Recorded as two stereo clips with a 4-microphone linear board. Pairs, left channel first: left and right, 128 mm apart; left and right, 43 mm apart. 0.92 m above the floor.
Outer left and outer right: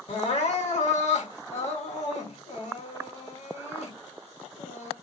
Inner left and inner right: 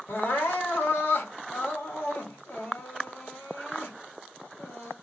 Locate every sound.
0.1 s crying: 60° left (ahead or behind), 1.3 m